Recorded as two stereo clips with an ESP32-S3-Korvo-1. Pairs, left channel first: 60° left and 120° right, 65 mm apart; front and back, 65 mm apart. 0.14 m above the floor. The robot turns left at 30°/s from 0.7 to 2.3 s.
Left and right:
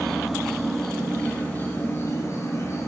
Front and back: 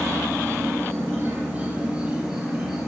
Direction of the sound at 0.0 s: 145° left.